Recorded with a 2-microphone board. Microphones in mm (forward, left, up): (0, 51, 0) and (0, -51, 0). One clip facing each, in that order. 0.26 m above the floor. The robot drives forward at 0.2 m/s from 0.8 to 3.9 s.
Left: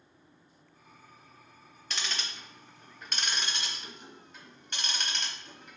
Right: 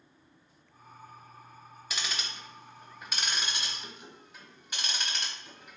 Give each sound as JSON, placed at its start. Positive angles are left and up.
{"t": 1.9, "sound": "ticking", "side_deg": -5, "distance_m": 0.6}